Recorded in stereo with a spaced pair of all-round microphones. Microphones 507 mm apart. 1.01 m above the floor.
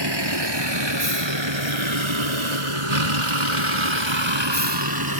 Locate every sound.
0.0 s a vehicle: 50° right (ahead or behind); by 5.2 s 45° right (ahead or behind)